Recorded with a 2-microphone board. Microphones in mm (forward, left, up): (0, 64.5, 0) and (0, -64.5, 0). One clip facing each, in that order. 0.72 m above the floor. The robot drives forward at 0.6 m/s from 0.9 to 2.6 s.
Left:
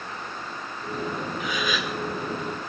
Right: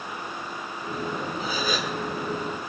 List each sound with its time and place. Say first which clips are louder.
1.4 s a gasp: right 1 dB; 35° right (ahead or behind), 1.9 m; by 2.0 s 40° right (ahead or behind), 1.6 m